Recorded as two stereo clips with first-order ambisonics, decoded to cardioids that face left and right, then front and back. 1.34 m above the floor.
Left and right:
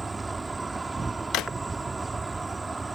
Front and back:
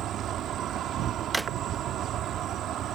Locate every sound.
0.0 s an insect: 165° right
1.3 s a drawer: 100° left